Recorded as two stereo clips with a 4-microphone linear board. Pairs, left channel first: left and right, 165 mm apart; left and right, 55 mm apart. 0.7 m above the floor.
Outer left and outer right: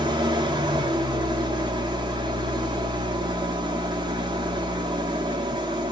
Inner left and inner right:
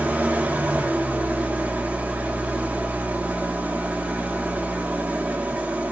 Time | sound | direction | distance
0.0 | an engine running | 30° right (ahead or behind) | 0.8 m